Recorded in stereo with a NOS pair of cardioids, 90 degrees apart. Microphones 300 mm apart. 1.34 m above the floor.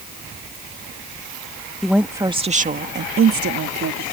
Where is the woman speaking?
Straight ahead; by 4.0 s 60° right.